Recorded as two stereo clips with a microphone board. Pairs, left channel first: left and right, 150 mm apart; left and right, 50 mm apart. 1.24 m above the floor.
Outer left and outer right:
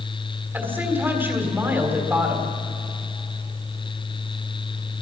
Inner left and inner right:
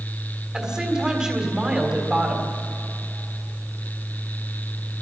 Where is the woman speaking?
15° right (ahead or behind), 3.5 m.